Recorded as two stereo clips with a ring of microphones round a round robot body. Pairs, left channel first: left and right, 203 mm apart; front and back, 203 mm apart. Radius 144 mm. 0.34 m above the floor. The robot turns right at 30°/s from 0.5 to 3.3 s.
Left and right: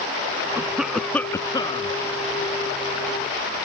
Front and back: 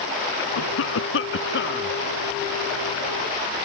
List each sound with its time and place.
0.6 s a cough: 10° right; by 1.9 s 30° left